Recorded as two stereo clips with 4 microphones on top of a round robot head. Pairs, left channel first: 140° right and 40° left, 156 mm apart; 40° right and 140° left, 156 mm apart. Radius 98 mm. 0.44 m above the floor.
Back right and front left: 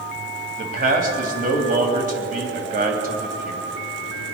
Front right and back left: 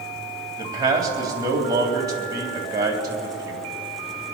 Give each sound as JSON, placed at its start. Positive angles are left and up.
{"t": 0.6, "sound": "a man speaking", "azimuth_deg": 70, "distance_m": 3.5}